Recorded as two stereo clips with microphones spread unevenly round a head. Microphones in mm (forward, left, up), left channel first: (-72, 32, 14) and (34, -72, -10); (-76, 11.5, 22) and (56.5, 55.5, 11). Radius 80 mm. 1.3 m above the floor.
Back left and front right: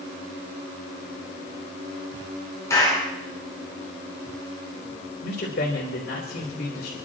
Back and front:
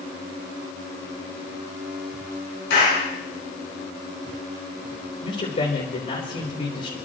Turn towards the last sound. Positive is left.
turn(degrees=160)